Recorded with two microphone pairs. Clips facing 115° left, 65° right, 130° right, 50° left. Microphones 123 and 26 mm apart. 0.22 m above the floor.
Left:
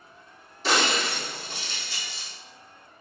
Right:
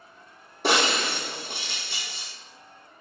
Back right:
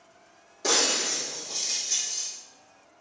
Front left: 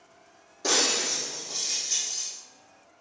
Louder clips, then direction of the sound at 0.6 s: Right 1 dB, even; 40° right.